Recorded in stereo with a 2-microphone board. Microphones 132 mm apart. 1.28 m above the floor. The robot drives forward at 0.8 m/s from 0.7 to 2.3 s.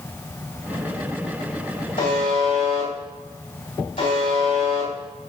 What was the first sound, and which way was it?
A buzzer, 75° left (ahead or behind).